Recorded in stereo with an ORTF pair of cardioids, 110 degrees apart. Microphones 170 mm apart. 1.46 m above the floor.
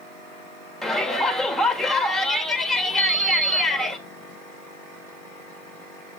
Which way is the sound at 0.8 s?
5° left.